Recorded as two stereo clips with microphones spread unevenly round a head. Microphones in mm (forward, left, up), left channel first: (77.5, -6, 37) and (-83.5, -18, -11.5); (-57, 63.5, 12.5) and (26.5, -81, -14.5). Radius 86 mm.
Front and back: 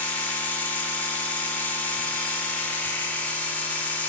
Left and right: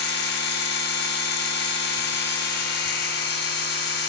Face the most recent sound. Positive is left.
turn(degrees=85)